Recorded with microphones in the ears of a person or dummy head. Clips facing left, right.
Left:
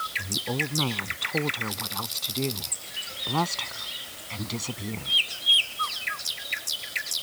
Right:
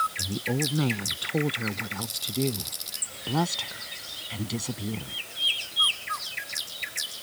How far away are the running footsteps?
No running footsteps in this recording.